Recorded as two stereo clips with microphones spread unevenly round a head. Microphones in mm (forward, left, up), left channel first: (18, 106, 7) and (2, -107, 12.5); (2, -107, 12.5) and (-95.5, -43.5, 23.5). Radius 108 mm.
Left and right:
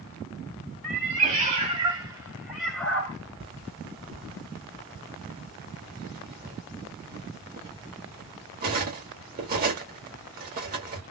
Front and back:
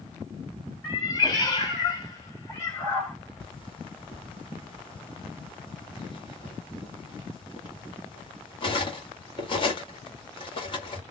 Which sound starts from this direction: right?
A cat meowing, at 0.8 s.